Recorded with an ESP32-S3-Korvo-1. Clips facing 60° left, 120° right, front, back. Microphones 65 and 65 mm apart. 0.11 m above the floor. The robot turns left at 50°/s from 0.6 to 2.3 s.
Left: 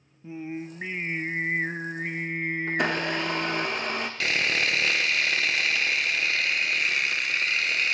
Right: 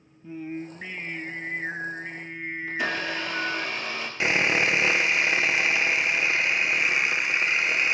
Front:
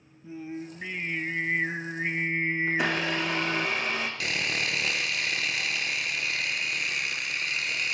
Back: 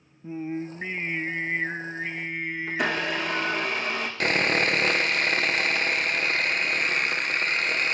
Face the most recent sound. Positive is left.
turn(degrees=180)